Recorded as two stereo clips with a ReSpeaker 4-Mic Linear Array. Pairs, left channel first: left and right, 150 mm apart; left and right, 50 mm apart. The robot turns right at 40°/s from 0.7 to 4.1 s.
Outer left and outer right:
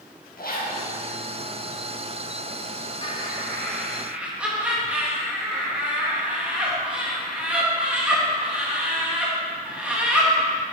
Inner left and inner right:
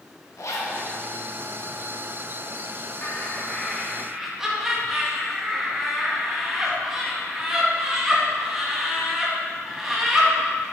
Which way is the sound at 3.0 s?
35° left (ahead or behind).